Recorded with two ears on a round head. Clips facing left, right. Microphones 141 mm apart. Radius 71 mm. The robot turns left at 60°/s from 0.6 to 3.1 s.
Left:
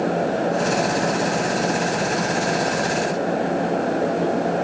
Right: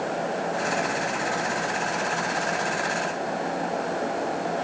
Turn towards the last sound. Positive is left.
No sound to turn to.